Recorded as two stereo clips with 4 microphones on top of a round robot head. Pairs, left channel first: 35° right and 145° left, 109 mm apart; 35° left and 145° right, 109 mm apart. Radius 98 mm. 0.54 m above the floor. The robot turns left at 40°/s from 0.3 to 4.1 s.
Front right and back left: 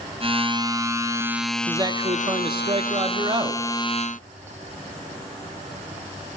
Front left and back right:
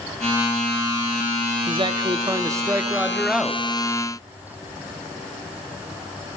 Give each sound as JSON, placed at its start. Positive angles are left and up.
{"t": 1.7, "sound": "a man speaking", "azimuth_deg": -165, "distance_m": 0.9}